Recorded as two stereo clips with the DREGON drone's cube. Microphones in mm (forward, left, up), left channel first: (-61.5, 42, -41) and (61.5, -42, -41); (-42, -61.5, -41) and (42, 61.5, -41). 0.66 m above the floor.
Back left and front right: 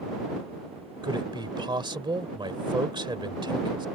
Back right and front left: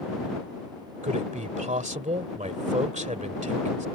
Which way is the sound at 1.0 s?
20° left.